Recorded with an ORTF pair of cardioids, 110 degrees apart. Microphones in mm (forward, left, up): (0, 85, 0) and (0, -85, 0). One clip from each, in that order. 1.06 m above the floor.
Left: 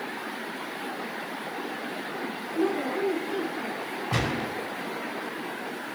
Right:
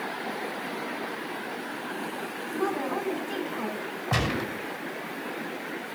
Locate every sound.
2.5 s a woman speaking: 50° right, 7 m
4.1 s a gunshot: 25° right, 5 m